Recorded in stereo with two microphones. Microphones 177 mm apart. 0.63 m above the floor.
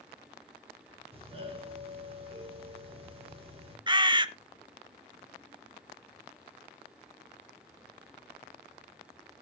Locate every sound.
1.1 s a doorbell: 35° right (ahead or behind), 3 m
3.9 s a bird: 25° right (ahead or behind), 0.6 m